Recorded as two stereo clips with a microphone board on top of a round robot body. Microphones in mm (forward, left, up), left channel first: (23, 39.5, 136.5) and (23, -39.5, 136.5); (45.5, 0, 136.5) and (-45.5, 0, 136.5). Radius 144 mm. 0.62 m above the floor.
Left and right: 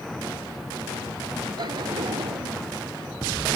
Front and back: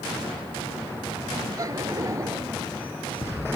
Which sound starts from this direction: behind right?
Laughter, at 1.6 s.